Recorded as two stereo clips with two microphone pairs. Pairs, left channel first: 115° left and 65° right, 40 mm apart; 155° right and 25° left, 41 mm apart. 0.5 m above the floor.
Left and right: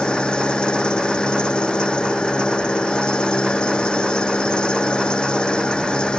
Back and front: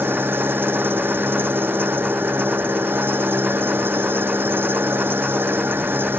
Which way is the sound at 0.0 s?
50° left.